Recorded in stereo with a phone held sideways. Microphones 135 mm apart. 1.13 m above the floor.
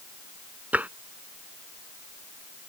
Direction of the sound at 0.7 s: 10° right (ahead or behind).